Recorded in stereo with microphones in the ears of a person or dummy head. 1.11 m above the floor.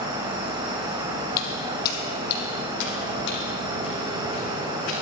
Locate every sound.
0.0 s an insect: 25° right (ahead or behind), 1.6 m
1.4 s footsteps: 45° left (ahead or behind), 2 m; by 5.0 s 75° left (ahead or behind), 4.5 m